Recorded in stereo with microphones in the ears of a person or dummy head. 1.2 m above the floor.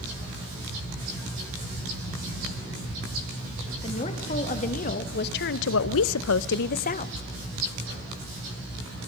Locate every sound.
3.8 s a woman speaking: 35° left (ahead or behind), 1.9 m